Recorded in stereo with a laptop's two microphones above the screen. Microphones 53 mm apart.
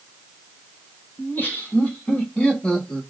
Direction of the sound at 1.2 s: 35° left (ahead or behind).